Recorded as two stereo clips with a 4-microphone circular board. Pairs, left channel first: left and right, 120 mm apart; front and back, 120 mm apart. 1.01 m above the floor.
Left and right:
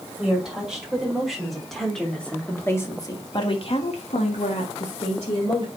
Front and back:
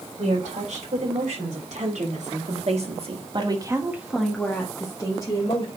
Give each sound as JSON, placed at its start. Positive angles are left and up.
{"t": 0.2, "sound": "a woman speaking", "azimuth_deg": -175, "distance_m": 5.5}